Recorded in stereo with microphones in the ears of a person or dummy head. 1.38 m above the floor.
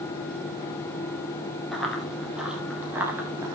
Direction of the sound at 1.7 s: 5° left (ahead or behind).